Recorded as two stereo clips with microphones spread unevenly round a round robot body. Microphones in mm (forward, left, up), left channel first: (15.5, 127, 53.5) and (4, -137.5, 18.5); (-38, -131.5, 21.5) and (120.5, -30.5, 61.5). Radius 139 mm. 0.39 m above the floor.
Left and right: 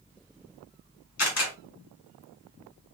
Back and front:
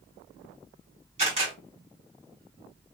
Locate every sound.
1.2 s a camera shutter: 90° left, 1.8 m